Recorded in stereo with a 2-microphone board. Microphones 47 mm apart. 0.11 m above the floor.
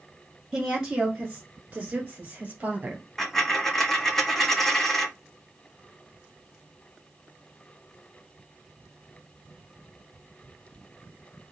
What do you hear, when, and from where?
0.5 s a woman speaking: 15° right (ahead or behind), 1.2 m; by 3.0 s 30° right (ahead or behind), 1.6 m
3.2 s a dropped coin: 5° left (ahead or behind), 0.5 m